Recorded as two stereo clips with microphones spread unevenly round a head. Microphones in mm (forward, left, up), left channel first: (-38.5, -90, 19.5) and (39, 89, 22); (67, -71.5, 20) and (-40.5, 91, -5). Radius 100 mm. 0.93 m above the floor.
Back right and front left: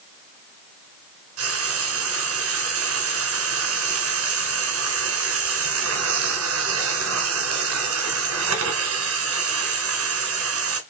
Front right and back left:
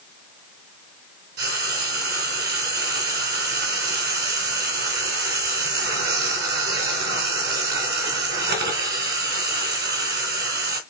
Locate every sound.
1.4 s frying: 85° left, 3 m